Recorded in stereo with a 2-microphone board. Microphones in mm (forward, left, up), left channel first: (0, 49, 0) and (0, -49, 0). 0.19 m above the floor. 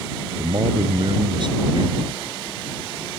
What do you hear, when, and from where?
0.4 s a man speaking: 55° right (ahead or behind)